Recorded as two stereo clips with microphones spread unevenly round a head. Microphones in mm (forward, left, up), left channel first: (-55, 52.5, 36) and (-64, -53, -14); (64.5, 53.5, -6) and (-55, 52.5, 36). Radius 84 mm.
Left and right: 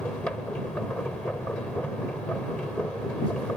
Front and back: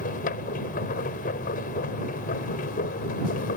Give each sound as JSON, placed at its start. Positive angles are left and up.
{"t": 0.0, "sound": "a machine running", "azimuth_deg": 5}